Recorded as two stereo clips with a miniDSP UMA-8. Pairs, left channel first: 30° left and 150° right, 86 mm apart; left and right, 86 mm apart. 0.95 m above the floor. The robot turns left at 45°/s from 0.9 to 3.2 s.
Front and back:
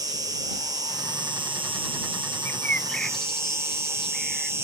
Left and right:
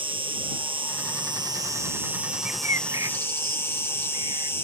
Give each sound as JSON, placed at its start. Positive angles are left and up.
{"t": 0.0, "sound": "an insect", "azimuth_deg": -105}
{"t": 2.5, "sound": "a bird", "azimuth_deg": -25}